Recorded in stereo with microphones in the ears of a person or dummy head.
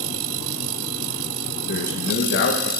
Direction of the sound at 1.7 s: 60° left (ahead or behind).